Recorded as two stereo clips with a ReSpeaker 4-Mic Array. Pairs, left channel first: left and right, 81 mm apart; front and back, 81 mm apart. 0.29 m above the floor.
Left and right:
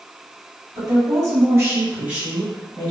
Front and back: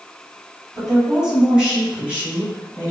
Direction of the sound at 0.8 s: 95° right.